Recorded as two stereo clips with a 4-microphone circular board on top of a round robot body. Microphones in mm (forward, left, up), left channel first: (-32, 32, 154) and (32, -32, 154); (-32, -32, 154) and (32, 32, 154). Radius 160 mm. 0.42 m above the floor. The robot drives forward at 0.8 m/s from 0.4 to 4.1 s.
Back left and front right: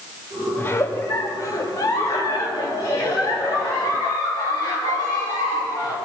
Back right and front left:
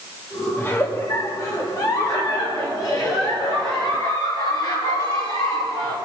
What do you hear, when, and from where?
0.6 s a giggle: straight behind, 1.3 m